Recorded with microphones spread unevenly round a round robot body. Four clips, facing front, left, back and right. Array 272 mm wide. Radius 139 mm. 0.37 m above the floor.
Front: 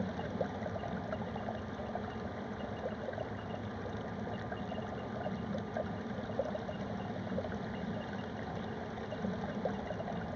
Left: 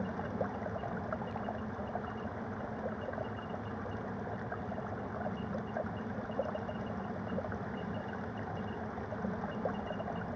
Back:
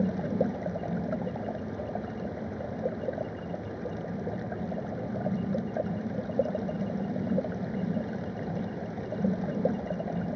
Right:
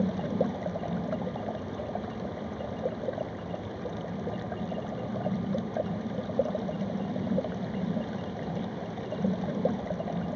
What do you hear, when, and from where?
0.0 s running water: 140° right